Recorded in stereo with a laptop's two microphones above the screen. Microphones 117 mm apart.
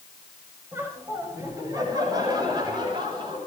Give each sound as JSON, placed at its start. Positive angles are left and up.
{"t": 0.7, "sound": "laughter", "side_deg": -20, "distance_m": 5.5}